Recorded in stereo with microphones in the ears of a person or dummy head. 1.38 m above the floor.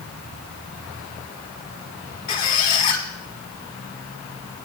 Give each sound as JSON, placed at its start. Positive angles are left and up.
{"t": 2.3, "sound": "a squeak", "side_deg": 40, "distance_m": 1.5}